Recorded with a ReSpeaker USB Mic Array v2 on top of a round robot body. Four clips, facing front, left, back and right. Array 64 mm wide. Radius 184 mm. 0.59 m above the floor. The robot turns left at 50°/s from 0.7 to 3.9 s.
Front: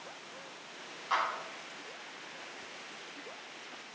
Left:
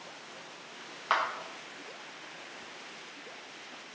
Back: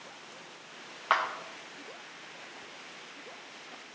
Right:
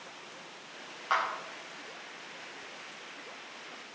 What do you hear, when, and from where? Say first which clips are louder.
1.1 s a clap: left 1 dB, back 4 dB; 165° left, 0.9 m; by 1.2 s 160° left, 0.9 m